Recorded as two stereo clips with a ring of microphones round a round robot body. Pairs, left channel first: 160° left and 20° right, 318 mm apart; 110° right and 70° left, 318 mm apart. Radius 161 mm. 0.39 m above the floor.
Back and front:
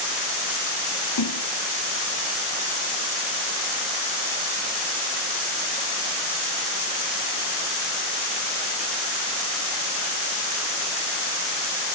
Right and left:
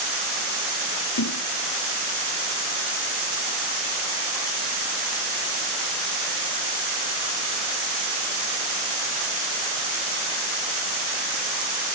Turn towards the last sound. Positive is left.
turn(degrees=-160)